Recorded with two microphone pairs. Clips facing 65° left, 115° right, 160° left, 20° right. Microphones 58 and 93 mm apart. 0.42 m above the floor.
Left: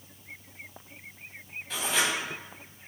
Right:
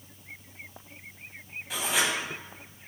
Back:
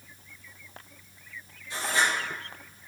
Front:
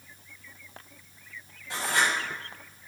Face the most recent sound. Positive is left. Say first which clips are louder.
# even, even
turn(degrees=-35)